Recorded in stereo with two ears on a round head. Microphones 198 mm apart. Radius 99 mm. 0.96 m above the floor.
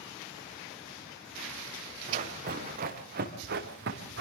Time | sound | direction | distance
2.1 | running footsteps | 35° right (ahead or behind) | 7 m